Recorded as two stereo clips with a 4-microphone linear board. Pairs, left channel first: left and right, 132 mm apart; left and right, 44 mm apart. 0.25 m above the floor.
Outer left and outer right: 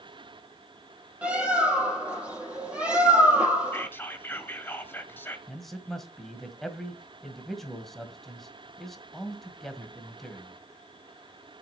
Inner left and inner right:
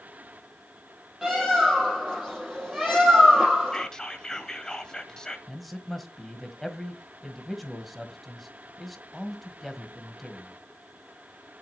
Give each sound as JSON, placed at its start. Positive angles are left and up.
{"t": 1.2, "sound": "a bird", "side_deg": -10, "distance_m": 5.0}
{"t": 3.7, "sound": "whispering", "side_deg": 15, "distance_m": 1.3}
{"t": 5.5, "sound": "a man speaking", "side_deg": 0, "distance_m": 1.7}